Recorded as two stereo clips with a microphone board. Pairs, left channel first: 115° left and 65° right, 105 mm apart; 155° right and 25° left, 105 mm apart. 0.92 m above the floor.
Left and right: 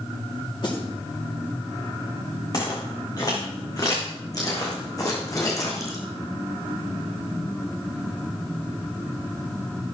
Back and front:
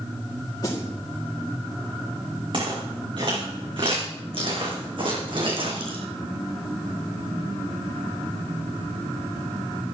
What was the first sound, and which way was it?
A snare drum, 150° left.